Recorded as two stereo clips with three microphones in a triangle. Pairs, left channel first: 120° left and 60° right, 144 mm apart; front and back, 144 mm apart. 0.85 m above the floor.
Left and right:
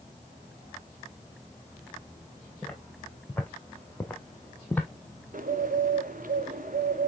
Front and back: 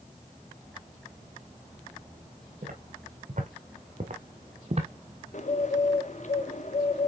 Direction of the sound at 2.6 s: 160° right.